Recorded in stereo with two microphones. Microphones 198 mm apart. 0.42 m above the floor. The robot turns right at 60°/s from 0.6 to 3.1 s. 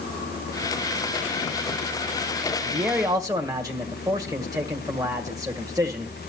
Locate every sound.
2.6 s a man speaking: 5° left (ahead or behind), 1.6 m; by 6.1 s 20° right (ahead or behind), 1.6 m